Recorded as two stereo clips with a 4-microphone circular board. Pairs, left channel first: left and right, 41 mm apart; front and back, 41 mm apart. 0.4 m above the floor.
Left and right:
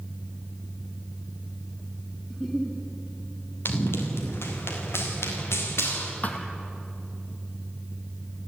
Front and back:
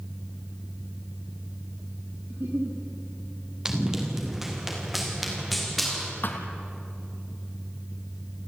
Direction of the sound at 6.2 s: 40° left.